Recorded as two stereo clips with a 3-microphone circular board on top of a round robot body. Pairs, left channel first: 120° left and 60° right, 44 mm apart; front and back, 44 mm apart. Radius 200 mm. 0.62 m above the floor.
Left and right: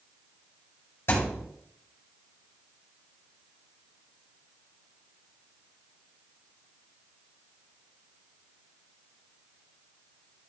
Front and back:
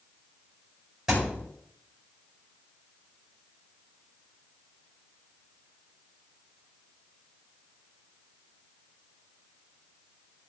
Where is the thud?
100° left, 5.5 m.